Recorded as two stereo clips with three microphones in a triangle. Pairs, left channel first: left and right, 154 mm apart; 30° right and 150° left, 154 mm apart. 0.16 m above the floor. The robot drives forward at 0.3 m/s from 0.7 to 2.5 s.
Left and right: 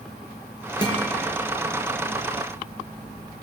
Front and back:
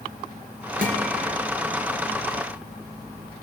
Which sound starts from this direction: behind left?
A guitar, at 0.8 s.